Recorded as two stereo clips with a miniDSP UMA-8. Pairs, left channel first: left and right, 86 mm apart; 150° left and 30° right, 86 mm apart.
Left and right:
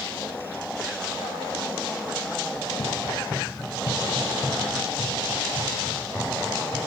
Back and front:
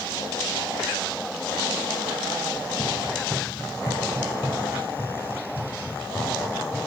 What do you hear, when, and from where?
2.5 s running footsteps: 80° left, 3 m; by 6.8 s 35° left, 8.5 m